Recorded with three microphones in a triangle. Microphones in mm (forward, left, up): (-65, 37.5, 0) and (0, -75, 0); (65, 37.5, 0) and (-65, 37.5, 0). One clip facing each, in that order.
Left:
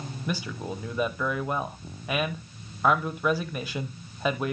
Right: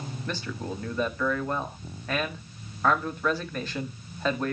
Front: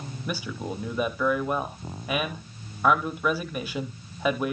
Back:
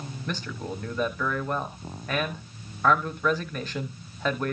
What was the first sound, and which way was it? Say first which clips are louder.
A man speaking: left 2 dB, front 2 dB; 65° left.